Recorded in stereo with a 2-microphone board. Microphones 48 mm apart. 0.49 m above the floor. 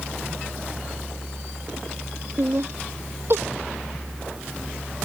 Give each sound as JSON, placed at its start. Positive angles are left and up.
{"t": 2.4, "sound": "laughter", "side_deg": -55}